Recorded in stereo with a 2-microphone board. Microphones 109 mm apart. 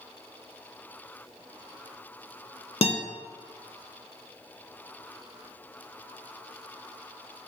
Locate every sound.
2.8 s a guitar: 75° left (ahead or behind), 0.7 m